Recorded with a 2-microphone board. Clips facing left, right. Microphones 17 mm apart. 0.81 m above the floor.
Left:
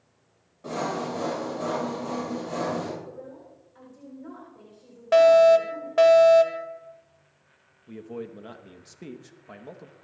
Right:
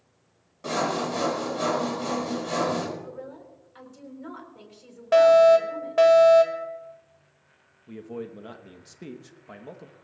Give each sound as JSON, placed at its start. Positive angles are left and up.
{"t": 0.6, "sound": "sawing", "side_deg": -55, "distance_m": 4.5}
{"t": 3.0, "sound": "a woman speaking", "side_deg": -55, "distance_m": 4.0}
{"t": 5.1, "sound": "a fire alarm", "side_deg": 5, "distance_m": 1.4}
{"t": 7.9, "sound": "a man speaking", "side_deg": 0, "distance_m": 0.9}